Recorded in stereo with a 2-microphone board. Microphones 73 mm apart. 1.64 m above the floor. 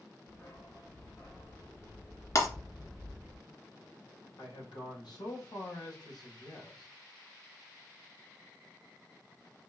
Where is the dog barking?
40° left (ahead or behind), 3 m; by 3.4 s 5° right (ahead or behind), 1.4 m.